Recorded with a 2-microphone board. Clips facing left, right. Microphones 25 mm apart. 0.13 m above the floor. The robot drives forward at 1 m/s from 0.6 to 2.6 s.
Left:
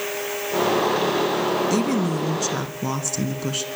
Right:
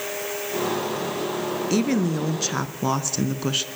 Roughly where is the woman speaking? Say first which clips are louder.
Left 1 dB; centre.